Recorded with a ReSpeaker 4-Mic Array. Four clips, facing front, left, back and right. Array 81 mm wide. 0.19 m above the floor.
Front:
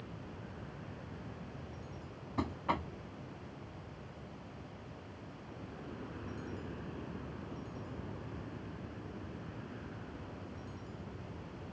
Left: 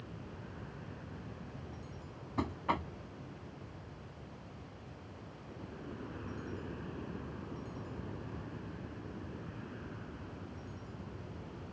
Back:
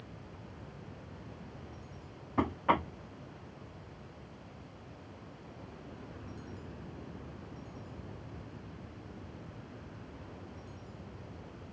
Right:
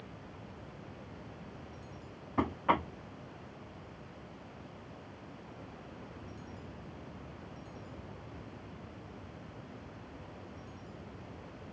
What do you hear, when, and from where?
0.0 s an aircraft: 65° left
2.4 s knocking: 140° right